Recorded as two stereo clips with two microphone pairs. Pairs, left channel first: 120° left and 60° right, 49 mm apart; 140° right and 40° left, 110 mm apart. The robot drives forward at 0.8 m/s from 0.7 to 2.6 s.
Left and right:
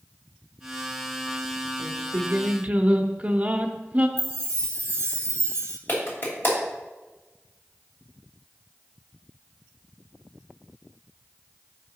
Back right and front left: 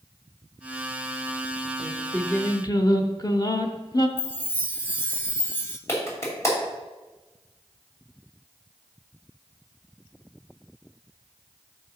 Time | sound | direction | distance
1.8 | singing | 40° right | 0.8 m
4.2 | a chime | 70° right | 0.9 m
5.9 | a clap | 155° left | 2.5 m